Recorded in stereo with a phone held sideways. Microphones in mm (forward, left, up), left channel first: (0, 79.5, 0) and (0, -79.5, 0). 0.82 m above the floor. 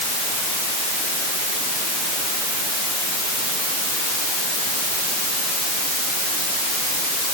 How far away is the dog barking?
I don't hear a dog barking.